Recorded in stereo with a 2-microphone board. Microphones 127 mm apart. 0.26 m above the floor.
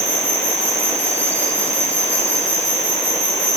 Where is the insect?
10° left (ahead or behind), 4 m.